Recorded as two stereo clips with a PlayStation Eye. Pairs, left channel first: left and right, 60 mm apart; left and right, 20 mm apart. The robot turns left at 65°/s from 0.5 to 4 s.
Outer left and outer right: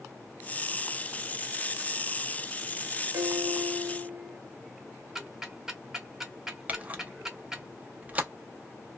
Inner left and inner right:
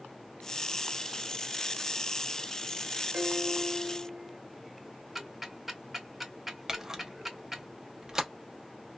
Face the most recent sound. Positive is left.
turn(degrees=-25)  # may be behind; listen again after turning